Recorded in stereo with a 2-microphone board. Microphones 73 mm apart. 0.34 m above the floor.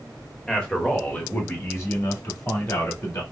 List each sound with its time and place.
0.5 s a man speaking: 10° left (ahead or behind), 1.2 m; by 3.2 s 50° left (ahead or behind), 2 m